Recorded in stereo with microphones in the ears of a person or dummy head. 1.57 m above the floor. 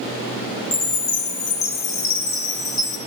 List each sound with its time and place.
0.7 s a chime: 20° left (ahead or behind), 0.7 m